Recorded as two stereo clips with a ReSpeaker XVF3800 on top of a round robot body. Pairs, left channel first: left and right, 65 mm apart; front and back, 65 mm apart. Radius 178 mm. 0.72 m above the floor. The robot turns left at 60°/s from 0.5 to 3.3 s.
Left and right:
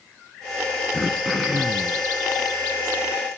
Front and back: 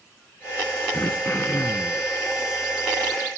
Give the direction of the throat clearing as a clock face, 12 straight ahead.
11 o'clock.